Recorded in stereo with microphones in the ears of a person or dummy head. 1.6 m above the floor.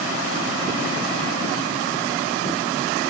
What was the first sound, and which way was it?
Only background noise.